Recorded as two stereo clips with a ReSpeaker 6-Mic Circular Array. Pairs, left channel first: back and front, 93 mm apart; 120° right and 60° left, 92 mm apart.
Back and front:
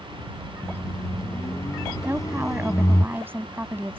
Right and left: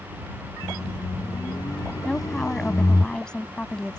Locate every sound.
0.6 s a microwave: 145° right
2.0 s a woman speaking: 45° right